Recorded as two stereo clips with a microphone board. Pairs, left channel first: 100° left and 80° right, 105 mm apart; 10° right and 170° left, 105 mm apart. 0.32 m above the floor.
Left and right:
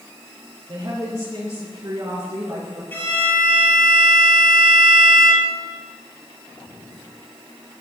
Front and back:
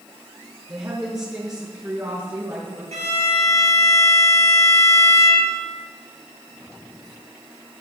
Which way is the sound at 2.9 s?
170° left.